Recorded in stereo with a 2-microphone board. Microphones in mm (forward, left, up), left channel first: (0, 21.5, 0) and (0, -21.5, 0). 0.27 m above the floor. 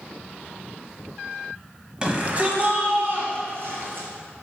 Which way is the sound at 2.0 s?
25° right (ahead or behind).